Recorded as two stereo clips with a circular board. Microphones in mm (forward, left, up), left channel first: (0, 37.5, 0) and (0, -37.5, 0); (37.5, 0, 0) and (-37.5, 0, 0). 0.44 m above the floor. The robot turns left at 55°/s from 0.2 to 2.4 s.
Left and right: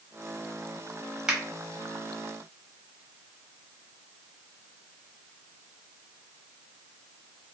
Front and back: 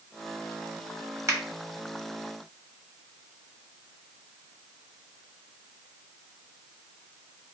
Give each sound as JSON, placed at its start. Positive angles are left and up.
{"t": 1.3, "sound": "a finger snap", "azimuth_deg": -165, "distance_m": 1.0}